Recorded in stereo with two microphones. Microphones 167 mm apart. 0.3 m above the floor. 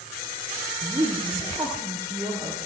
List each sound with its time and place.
0.8 s a woman speaking: 20° right (ahead or behind), 7.5 m